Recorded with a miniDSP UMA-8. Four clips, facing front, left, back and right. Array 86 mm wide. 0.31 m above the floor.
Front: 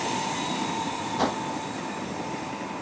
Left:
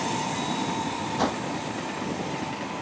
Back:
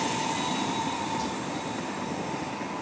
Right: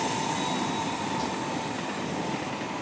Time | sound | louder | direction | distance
1.2 | a whoosh | left 4 dB, front 5 dB | 40° left | ?